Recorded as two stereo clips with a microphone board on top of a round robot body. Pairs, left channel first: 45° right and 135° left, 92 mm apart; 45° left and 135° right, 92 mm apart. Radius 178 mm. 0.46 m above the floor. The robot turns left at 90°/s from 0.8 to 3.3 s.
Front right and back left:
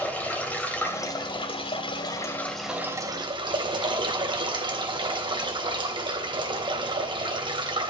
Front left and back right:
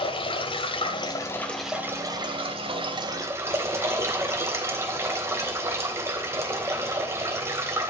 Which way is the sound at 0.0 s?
30° left.